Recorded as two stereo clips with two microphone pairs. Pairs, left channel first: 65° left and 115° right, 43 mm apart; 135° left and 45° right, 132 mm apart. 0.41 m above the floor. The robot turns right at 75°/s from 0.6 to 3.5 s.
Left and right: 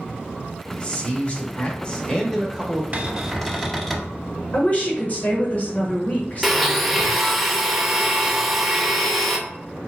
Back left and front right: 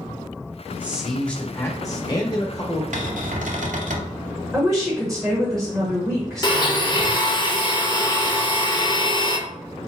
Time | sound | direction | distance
0.7 | a man speaking | 20° left | 1.0 m
2.9 | a cupboard door | 65° right | 0.6 m
4.5 | a woman speaking | 45° left | 1.1 m
6.4 | a blender | 160° left | 0.5 m